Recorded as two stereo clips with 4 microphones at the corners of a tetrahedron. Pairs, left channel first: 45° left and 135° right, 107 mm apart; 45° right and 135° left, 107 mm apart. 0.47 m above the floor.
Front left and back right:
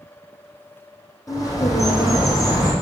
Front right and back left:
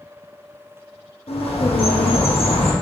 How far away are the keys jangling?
I don't hear keys jangling.